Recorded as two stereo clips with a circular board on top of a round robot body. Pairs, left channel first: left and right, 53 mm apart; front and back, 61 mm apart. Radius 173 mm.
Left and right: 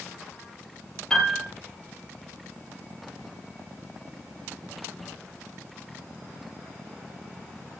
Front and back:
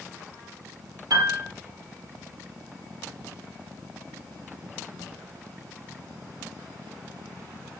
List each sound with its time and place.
1.1 s a piano: 165° left, 6 m